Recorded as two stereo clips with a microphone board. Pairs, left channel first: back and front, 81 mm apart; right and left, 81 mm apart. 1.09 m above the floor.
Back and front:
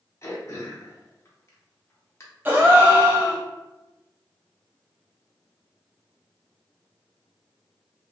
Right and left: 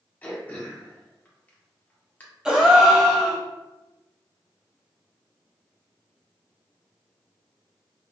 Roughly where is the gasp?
Ahead.